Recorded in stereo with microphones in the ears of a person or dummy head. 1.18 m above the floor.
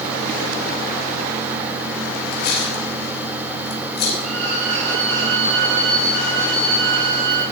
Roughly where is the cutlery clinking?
Left.